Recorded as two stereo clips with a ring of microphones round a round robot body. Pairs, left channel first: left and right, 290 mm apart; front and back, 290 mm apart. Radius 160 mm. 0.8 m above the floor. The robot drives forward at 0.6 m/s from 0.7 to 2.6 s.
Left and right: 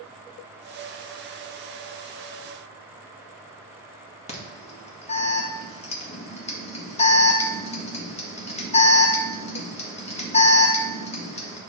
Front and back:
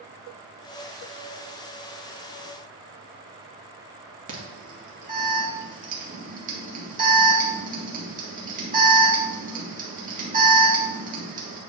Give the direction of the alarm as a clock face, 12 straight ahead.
7 o'clock.